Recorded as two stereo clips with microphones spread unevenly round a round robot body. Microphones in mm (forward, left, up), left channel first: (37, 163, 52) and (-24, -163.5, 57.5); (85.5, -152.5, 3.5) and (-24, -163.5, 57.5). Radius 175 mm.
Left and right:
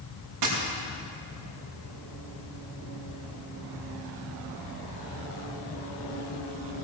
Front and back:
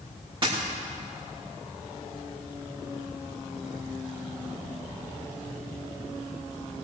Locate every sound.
0.4 s a dropped coin: 135° right, 5 m